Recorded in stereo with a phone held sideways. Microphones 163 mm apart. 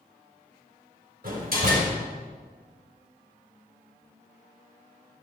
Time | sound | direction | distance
1.2 | a door slam | 65° right (ahead or behind) | 4 m